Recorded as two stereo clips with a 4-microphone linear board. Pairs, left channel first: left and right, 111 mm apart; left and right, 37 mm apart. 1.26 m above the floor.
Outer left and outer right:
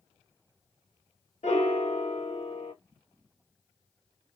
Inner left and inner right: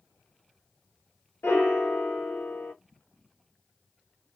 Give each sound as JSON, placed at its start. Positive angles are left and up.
{"t": 1.4, "sound": "a piano", "side_deg": 85, "distance_m": 1.4}